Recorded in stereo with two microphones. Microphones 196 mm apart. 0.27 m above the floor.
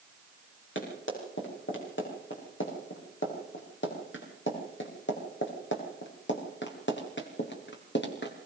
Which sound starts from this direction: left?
Running footsteps, at 0.8 s.